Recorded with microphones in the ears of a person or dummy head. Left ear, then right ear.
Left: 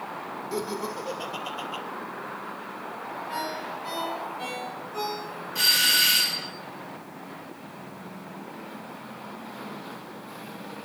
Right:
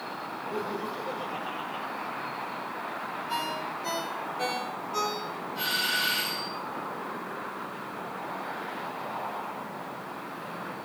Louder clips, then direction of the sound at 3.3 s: Even; 30° right (ahead or behind).